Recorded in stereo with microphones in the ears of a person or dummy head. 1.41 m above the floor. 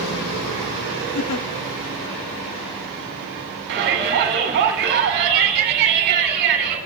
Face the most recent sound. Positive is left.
turn(degrees=-55)  # may be behind; listen again after turning